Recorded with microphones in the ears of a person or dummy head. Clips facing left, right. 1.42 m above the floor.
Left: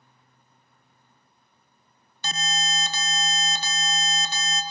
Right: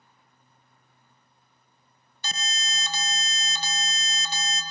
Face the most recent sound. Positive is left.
turn(degrees=50)  # may be behind; listen again after turning